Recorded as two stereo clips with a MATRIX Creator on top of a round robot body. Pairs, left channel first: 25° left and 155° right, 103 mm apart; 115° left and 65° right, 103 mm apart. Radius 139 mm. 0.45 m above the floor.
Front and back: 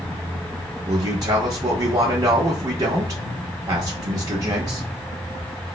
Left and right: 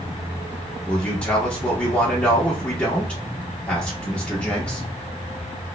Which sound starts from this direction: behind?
A man speaking, at 0.8 s.